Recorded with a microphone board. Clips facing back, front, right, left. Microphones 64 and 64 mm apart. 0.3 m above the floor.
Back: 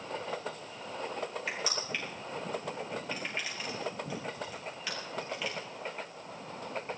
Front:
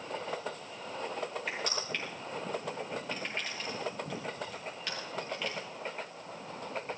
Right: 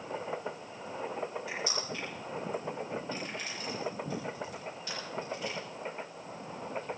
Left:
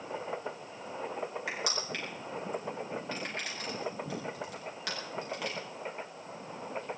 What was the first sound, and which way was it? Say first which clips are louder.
Crushing: even, left 1 dB; 95° left.